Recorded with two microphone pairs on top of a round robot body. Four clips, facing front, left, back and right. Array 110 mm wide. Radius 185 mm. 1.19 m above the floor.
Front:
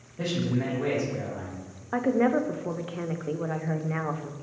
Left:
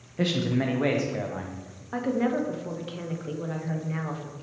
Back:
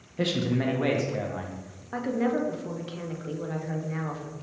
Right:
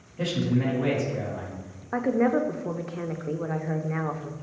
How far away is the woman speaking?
About 0.6 m.